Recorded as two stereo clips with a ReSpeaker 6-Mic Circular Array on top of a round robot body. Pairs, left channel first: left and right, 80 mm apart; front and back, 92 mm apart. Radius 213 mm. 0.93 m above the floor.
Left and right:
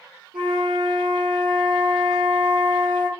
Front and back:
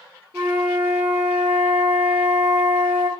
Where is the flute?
110° right, 0.8 m.